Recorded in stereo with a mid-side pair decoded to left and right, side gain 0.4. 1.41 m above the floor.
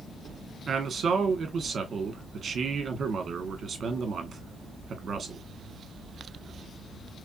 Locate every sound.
0.7 s a man speaking: 50° right, 1.0 m